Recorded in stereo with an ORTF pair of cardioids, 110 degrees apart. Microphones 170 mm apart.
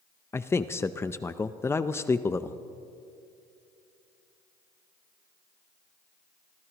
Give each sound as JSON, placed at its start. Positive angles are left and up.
{"t": 0.3, "sound": "a man speaking", "azimuth_deg": 15, "distance_m": 0.5}